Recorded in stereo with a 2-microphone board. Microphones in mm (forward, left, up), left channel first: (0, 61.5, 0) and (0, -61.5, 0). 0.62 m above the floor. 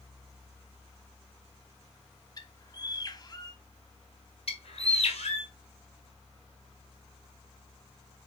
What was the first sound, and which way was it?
A bird, 30° left (ahead or behind).